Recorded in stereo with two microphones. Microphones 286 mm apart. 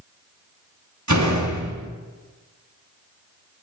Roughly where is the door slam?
Right.